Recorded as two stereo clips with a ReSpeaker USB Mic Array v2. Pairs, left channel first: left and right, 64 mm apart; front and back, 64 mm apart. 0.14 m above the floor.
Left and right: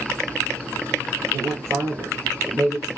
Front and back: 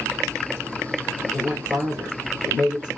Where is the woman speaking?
120° right, 2.0 m.